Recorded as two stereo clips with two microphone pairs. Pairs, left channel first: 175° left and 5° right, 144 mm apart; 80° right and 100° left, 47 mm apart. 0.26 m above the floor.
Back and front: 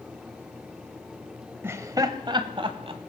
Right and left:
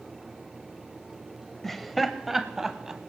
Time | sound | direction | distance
1.6 | laughter | straight ahead | 1.0 m